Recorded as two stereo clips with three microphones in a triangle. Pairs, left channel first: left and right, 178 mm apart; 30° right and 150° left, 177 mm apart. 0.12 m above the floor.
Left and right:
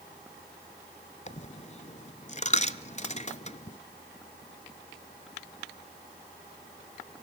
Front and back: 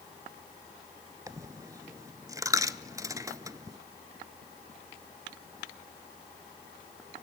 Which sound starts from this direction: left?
A dropped coin, at 1.3 s.